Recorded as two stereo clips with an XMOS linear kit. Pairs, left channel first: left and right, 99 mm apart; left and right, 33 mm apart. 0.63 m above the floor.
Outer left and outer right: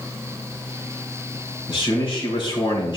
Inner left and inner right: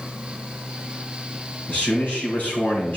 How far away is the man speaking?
About 4 m.